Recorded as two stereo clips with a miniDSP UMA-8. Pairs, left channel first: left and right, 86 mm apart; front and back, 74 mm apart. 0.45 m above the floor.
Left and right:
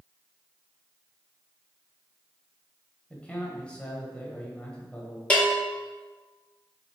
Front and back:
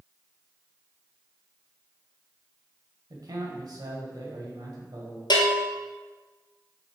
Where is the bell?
15° left, 1.5 m.